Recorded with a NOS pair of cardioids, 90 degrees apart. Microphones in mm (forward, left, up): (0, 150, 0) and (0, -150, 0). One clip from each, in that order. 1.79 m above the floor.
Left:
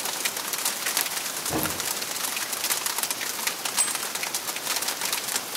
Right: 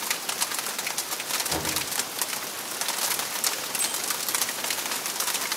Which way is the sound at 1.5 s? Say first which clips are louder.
Left 1 dB; 50° left.